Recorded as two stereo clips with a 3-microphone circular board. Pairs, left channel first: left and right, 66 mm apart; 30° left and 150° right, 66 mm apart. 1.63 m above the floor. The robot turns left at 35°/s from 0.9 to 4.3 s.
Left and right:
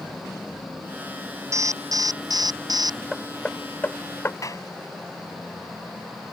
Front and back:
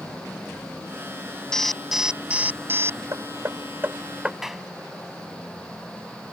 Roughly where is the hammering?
Behind.